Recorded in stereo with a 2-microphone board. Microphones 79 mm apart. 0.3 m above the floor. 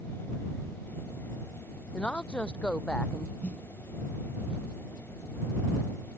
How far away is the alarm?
No alarm in this recording.